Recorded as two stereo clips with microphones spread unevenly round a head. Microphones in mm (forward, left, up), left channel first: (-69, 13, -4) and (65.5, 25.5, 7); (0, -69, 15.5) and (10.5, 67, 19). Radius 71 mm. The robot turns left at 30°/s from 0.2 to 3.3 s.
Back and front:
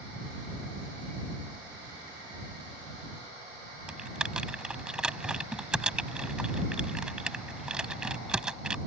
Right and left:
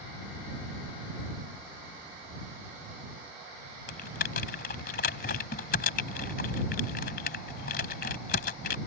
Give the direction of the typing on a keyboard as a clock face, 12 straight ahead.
3 o'clock.